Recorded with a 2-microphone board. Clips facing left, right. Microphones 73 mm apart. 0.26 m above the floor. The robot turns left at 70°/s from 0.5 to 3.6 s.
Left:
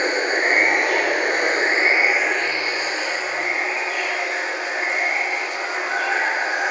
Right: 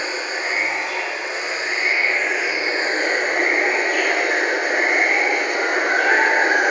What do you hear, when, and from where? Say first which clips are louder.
0.0 s running water: left 5 dB; 125° left, 1.1 m; by 6.7 s 90° right, 1.1 m